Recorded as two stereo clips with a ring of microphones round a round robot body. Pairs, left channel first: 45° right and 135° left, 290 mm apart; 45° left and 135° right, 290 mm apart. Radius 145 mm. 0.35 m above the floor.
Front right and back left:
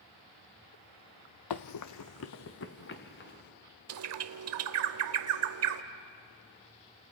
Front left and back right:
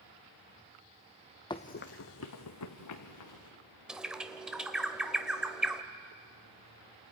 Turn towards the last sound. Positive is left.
turn(degrees=140)